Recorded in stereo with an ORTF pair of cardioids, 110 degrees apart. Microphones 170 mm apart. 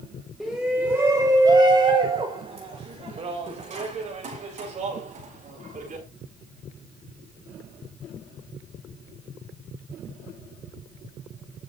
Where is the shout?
Straight ahead, 1.7 m; by 6.0 s 50° right, 5.5 m.